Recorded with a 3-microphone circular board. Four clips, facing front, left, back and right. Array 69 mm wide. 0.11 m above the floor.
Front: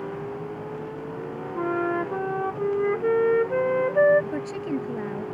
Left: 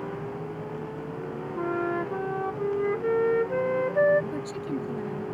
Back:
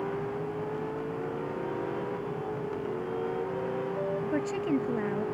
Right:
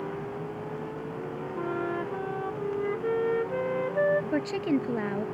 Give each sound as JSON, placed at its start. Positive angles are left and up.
{"t": 1.6, "sound": "a flute", "azimuth_deg": 10}
{"t": 4.3, "sound": "a woman speaking", "azimuth_deg": -95}